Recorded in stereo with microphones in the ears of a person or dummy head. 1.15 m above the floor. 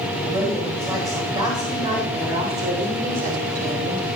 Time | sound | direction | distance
0.2 | a woman speaking | 10° right (ahead or behind) | 5 m